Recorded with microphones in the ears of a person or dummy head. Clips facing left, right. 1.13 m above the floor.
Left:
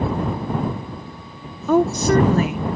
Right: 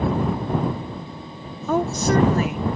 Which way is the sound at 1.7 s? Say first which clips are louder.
Left 4 dB; 60° left (ahead or behind).